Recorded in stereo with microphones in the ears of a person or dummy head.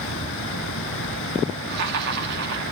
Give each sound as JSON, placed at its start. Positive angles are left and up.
{"t": 0.0, "sound": "running water", "side_deg": 65, "distance_m": 2.5}
{"t": 1.7, "sound": "laughter", "side_deg": -60, "distance_m": 3.0}